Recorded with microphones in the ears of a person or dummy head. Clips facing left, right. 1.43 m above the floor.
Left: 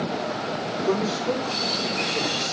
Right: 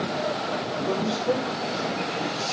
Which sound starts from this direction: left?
A man speaking, at 0.9 s.